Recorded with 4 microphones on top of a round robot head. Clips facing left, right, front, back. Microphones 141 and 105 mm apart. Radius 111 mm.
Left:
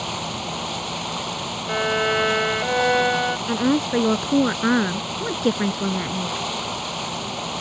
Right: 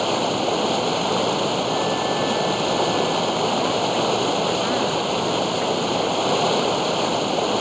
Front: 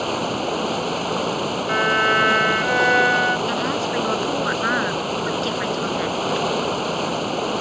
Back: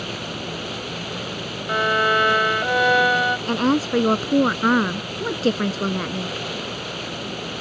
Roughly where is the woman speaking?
Behind left.